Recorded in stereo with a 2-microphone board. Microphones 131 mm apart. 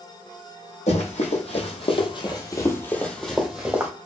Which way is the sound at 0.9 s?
60° left (ahead or behind).